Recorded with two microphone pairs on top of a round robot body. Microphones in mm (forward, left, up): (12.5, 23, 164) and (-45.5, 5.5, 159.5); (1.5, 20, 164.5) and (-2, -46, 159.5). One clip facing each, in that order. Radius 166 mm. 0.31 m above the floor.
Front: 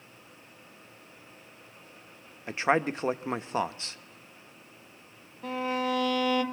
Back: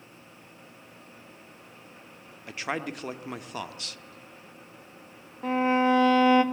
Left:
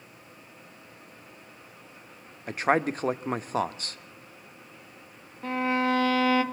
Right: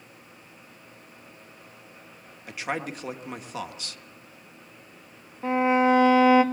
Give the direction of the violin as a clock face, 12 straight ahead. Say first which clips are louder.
Back 7 dB, right 5 dB; 5 o'clock.